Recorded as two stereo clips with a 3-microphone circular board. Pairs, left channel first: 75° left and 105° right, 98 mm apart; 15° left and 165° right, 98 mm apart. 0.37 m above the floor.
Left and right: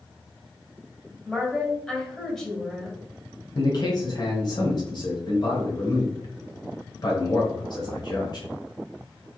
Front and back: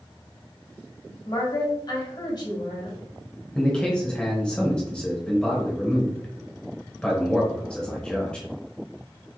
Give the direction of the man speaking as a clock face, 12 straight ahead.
9 o'clock.